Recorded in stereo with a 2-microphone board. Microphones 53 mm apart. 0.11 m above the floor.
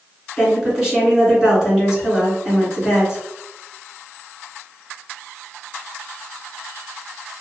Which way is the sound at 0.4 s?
10° right (ahead or behind).